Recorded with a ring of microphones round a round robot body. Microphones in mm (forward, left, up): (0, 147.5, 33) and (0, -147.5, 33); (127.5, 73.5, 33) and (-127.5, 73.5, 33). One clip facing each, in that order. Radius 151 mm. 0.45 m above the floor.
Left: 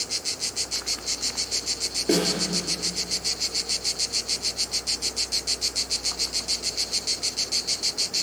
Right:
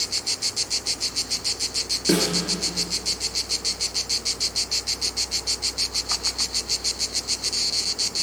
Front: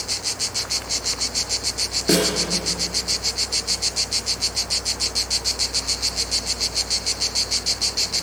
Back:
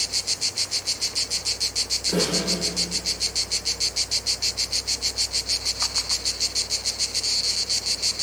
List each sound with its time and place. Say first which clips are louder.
2.1 s a snare drum: right 1 dB, front 5 dB; 20° right, 2.5 m